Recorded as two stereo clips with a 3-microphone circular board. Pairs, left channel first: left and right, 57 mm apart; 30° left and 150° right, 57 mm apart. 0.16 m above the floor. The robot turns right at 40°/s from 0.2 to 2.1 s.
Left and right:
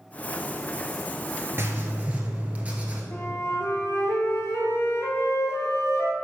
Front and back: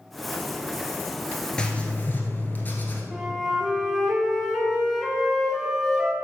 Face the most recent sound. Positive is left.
turn(degrees=120)